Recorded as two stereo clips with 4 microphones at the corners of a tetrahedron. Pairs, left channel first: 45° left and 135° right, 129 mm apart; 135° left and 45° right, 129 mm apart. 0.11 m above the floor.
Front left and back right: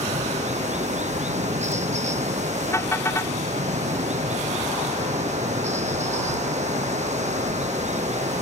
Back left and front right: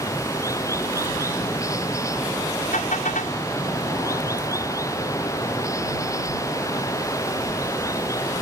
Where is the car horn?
115° left.